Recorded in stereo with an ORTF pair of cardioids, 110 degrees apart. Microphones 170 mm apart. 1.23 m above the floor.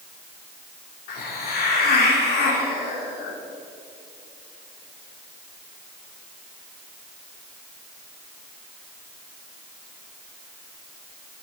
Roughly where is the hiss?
Left.